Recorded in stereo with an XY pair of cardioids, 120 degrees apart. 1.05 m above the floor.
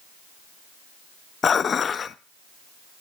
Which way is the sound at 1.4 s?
40° left.